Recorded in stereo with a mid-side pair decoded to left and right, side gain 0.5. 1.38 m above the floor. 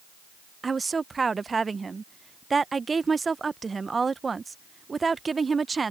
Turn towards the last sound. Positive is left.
turn(degrees=-25)